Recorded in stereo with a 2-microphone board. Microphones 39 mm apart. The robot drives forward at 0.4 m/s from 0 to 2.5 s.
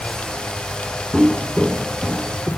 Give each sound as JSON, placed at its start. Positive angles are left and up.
{"t": 1.1, "sound": "footsteps", "side_deg": -30, "distance_m": 1.0}